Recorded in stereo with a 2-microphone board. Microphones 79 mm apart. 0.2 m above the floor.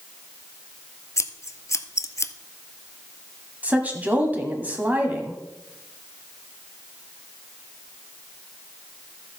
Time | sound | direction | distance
1.2 | scissors | 40° left (ahead or behind) | 0.6 m
3.6 | a woman speaking | 20° right (ahead or behind) | 1.4 m